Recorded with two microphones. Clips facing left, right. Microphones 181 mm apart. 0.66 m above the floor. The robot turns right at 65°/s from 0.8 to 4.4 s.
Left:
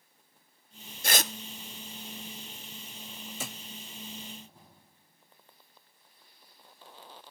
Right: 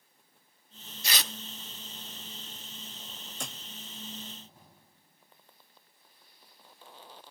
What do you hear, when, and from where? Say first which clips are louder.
1.0 s tearing paper: left 6 dB; 55° left (ahead or behind), 0.7 m; by 1.3 s 45° left (ahead or behind), 0.7 m
3.4 s a thud: left 1 dB; 5° left (ahead or behind), 0.5 m; by 3.6 s 5° right (ahead or behind), 0.5 m